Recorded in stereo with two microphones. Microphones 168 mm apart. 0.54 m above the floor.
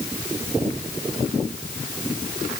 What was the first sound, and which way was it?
Only background noise.